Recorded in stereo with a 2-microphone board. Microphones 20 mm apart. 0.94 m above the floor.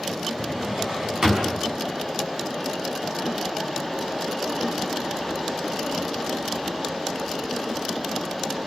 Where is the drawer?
40° right (ahead or behind), 5.5 m.